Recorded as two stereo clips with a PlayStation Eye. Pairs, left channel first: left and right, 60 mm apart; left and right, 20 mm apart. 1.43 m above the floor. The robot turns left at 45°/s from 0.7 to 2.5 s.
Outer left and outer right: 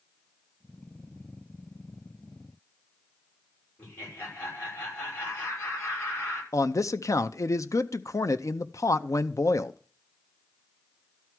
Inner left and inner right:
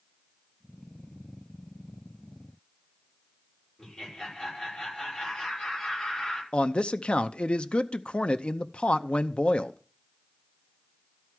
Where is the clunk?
No clunk in this recording.